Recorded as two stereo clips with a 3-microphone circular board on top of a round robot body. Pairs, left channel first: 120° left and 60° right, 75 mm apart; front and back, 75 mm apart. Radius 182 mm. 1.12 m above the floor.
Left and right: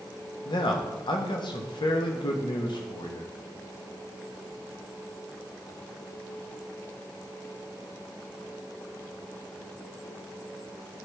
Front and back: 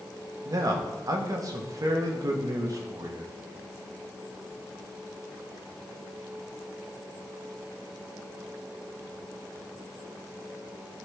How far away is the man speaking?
About 1.4 m.